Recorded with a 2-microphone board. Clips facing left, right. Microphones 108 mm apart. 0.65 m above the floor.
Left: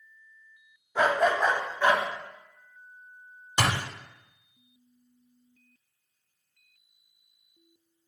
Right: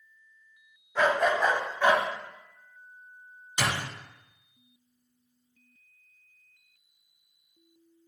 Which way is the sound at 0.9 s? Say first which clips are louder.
Left 1 dB; 10° left (ahead or behind).